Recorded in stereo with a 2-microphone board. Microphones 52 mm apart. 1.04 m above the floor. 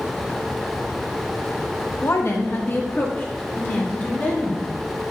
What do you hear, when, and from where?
2.0 s a woman speaking: 60° left (ahead or behind), 1.2 m; by 4.7 s 40° left (ahead or behind), 3 m